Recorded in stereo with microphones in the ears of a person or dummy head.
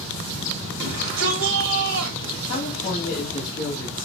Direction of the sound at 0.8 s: 70° right (ahead or behind).